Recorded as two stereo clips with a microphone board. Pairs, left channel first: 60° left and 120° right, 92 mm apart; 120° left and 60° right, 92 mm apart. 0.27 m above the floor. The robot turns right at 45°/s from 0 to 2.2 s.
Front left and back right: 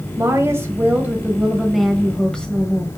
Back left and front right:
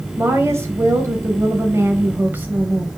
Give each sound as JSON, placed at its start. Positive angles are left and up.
{"t": 0.2, "sound": "a woman speaking", "azimuth_deg": -105, "distance_m": 1.6}